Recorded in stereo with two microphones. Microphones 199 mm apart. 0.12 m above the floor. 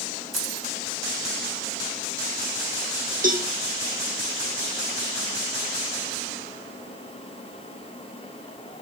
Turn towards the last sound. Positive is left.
turn(degrees=-40)  # may be behind; listen again after turning